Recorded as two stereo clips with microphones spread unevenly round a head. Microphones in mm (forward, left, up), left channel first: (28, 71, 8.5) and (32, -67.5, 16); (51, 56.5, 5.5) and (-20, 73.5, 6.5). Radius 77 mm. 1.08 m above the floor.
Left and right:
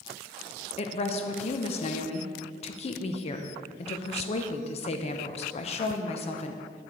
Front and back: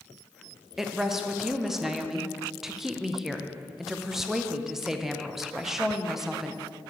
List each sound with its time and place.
0.8 s a woman speaking: 80° left, 0.7 m